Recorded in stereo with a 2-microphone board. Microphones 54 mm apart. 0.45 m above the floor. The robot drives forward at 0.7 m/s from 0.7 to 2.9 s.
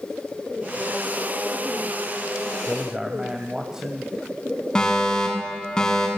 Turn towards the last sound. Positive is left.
turn(degrees=15)  # may be behind; listen again after turning